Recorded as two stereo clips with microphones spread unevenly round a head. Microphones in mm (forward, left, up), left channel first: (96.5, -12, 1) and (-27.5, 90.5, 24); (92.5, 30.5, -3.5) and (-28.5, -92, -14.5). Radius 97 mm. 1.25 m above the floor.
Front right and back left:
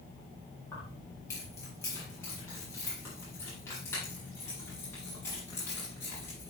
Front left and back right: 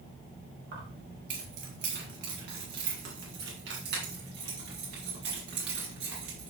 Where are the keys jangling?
115° right, 7 m; by 6.5 s 120° right, 10.5 m.